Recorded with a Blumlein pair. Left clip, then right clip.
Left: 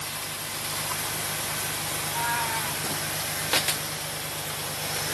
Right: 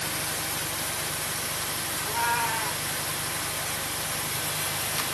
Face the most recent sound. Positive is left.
turn(degrees=-15)